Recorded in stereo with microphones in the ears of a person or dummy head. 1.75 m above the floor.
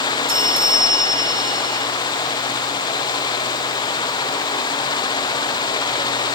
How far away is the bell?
About 1.4 m.